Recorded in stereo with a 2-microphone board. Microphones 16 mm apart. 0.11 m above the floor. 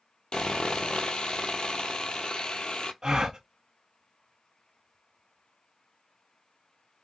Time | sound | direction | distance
0.3 | sawing | 70° left (ahead or behind) | 0.5 m
3.0 | a gasp | 45° right (ahead or behind) | 0.8 m